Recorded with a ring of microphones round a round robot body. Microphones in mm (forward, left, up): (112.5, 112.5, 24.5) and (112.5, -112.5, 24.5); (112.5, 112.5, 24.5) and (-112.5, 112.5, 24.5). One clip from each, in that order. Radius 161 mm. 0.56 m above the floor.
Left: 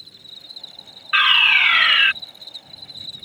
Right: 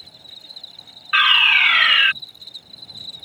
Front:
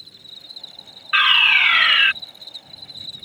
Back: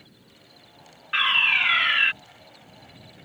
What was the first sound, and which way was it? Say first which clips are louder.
An insect: even, front 14 dB; straight ahead.